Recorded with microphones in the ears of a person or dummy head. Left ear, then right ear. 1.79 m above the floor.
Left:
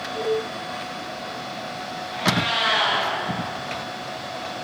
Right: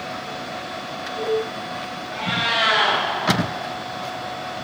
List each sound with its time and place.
2.1 s a cat meowing: 25° right (ahead or behind), 2.5 m